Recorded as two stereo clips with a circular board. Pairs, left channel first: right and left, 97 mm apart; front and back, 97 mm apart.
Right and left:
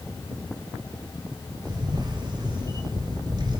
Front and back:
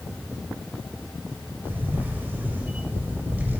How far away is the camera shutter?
About 1.4 m.